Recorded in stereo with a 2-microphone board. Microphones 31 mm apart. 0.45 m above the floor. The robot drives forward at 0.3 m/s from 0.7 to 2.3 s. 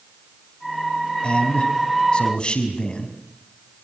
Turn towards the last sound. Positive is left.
turn(degrees=30)  # may be behind; listen again after turning